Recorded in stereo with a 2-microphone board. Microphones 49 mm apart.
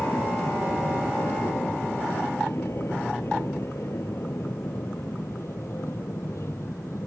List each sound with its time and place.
0.0 s an aircraft: 55° left (ahead or behind); by 7.1 s 65° left (ahead or behind)